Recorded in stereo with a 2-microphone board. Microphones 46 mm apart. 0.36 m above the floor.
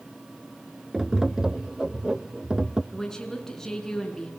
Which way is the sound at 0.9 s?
15° right (ahead or behind).